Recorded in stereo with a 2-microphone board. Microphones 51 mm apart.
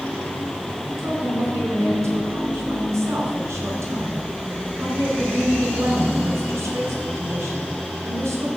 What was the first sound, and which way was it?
A woman speaking, 70° right (ahead or behind).